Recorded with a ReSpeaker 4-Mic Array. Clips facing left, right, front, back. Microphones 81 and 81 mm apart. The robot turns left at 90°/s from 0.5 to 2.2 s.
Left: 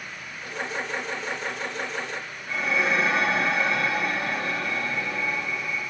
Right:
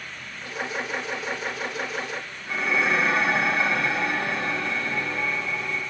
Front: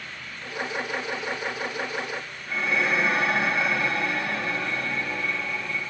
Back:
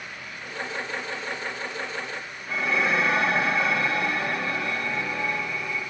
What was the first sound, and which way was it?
Dishes clattering, 160° right.